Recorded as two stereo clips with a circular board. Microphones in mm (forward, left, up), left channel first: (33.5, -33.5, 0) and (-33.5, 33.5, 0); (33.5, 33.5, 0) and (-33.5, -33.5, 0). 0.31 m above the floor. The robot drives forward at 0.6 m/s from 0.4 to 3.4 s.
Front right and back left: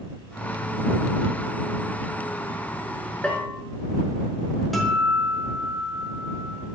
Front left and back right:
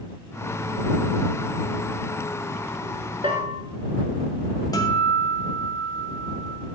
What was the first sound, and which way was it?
A bell, 125° right.